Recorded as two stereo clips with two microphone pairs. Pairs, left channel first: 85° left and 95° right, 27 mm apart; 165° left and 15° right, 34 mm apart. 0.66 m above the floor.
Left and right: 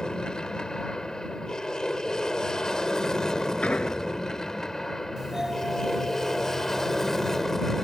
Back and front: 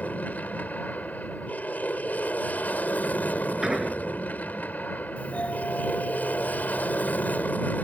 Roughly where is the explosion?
Ahead left.